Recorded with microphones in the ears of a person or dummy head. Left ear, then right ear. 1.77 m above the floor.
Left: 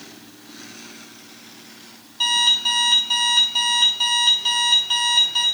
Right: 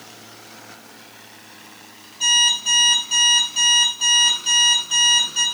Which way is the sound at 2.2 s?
70° left (ahead or behind).